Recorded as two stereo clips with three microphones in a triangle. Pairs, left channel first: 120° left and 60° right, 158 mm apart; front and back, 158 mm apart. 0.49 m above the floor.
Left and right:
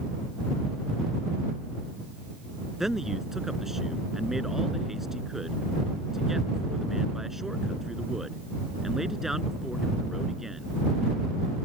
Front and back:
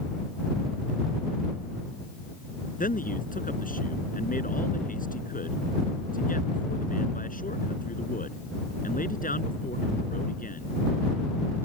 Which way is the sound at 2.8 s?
30° left.